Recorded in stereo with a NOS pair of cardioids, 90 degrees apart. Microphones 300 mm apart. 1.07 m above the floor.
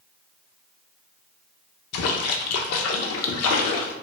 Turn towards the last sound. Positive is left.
turn(degrees=60)